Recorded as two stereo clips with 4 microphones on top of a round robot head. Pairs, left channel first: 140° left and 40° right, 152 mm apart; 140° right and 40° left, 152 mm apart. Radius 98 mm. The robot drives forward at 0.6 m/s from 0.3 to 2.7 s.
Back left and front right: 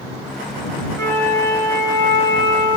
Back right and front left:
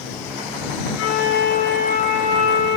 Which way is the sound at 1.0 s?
145° right.